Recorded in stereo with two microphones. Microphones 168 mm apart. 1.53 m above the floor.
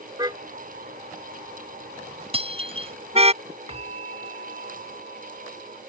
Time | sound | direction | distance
0.2 | a car horn | 25° right (ahead or behind) | ?
2.3 | breaking glass | 35° right (ahead or behind) | ?
3.7 | a bell | 40° right (ahead or behind) | ?